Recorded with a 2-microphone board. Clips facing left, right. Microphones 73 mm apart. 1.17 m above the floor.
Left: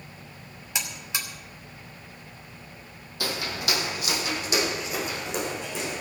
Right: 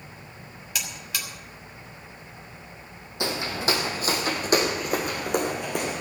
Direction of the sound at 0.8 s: 25° left (ahead or behind).